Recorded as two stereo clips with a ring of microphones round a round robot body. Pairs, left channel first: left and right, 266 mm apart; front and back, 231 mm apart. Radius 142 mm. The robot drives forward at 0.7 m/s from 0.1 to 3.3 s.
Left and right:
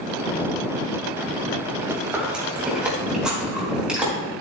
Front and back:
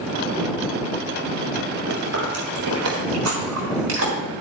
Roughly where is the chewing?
Behind.